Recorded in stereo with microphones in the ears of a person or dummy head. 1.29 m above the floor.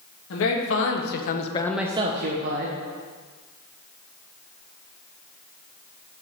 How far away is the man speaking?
About 1.8 m.